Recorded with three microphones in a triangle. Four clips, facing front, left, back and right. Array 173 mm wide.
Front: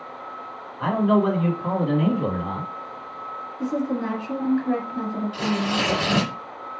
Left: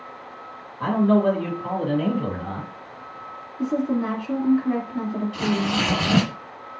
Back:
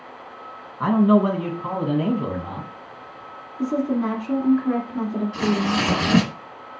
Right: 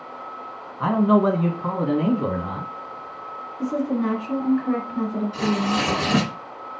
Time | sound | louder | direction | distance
0.8 | a man speaking | right 1 dB, back 3 dB | 140° right | 1.9 m
3.6 | a woman speaking | even, back 3 dB | straight behind | 1.7 m
5.3 | tearing paper | right 1 dB, back 3 dB | 160° right | 2.0 m